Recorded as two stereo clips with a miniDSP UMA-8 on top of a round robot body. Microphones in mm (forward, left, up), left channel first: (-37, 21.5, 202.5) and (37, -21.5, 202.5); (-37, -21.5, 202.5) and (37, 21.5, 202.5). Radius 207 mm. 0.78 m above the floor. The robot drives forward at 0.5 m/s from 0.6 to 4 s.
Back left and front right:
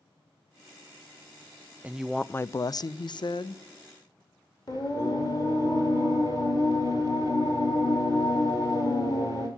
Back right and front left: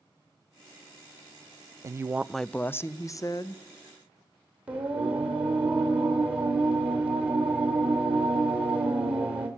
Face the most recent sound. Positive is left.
turn(degrees=105)